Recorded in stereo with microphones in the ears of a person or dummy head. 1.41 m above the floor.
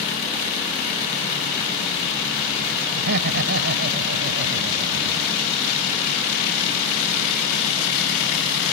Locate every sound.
3.0 s laughter: 65° right (ahead or behind); by 5.3 s 55° right (ahead or behind)